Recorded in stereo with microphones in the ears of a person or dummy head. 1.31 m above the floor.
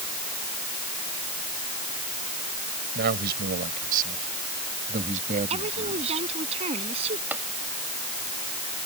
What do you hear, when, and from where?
3.0 s a man speaking: 55° right (ahead or behind); by 6.3 s 35° right (ahead or behind)
5.5 s a woman speaking: 35° right (ahead or behind)
7.3 s tapping: 10° right (ahead or behind)